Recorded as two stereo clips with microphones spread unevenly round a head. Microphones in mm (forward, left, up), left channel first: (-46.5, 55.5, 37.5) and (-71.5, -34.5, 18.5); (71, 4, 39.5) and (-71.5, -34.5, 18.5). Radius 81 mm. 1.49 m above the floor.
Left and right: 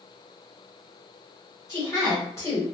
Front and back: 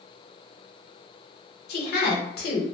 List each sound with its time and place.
1.7 s a woman speaking: 5° left, 0.9 m